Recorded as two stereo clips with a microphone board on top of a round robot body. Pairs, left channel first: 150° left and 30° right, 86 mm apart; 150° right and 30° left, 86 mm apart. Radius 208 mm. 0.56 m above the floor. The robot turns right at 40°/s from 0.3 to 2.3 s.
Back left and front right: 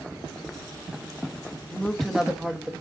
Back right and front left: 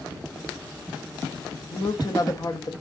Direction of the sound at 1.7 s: 135° right.